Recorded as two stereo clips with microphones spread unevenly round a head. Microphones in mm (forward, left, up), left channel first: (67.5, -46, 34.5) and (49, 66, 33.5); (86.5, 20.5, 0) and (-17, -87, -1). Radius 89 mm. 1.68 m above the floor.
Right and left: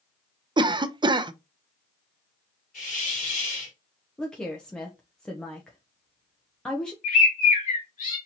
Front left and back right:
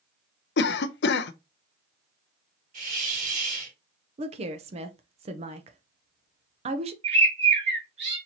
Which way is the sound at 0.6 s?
45° left.